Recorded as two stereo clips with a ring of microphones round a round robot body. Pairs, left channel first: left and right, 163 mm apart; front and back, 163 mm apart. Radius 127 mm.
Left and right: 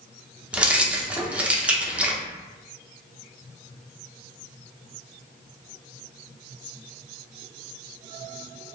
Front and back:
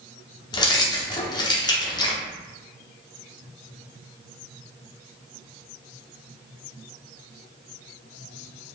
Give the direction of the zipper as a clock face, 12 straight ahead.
I don't hear a zipper.